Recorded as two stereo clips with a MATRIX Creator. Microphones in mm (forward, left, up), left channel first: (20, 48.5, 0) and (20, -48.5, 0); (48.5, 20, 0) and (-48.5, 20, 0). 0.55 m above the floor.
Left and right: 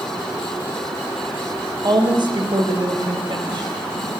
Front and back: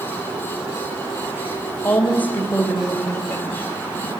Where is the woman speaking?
70° right, 2.5 m; by 4.1 s 65° right, 4 m.